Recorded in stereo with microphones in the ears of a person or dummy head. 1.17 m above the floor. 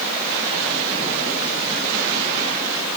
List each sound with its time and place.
Only background noise.